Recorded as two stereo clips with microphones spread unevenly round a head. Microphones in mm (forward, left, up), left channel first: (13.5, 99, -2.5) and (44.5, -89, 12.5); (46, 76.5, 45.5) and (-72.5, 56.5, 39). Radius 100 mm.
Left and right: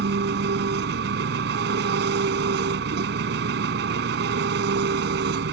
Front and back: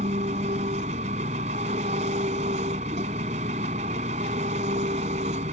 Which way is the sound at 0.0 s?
120° right.